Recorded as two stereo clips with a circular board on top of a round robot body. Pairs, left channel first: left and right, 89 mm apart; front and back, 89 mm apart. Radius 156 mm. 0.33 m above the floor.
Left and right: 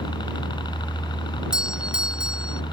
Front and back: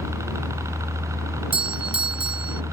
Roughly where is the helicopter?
Behind left.